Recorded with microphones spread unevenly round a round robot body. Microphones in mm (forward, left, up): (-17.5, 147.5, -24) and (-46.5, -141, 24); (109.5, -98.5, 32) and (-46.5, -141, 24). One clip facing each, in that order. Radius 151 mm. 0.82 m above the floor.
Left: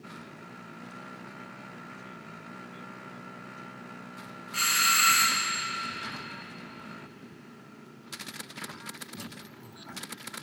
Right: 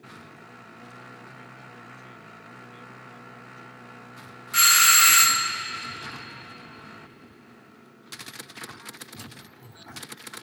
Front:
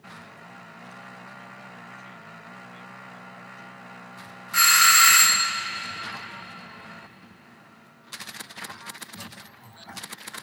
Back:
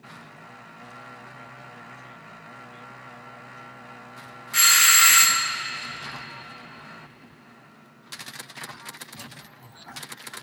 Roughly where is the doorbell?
Behind right.